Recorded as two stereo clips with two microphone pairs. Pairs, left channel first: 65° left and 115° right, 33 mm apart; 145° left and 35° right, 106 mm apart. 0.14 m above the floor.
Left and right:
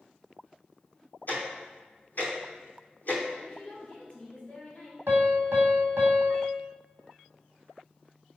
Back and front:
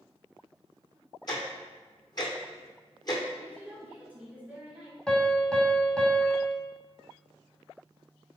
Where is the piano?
130° right, 1.0 m.